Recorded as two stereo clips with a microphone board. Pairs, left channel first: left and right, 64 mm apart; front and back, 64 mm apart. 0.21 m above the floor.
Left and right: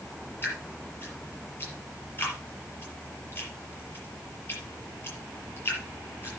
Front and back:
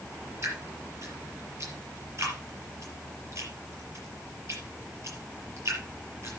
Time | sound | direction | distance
0.4 | dripping | 145° left | 5.5 m